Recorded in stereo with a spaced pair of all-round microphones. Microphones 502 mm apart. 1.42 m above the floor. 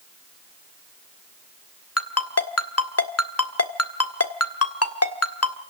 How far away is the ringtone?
About 1.5 m.